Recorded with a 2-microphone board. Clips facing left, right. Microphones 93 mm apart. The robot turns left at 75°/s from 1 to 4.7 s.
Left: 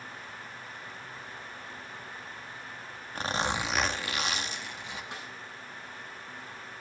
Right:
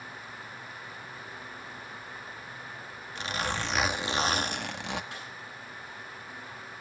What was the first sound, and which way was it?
A zipper, 45° left.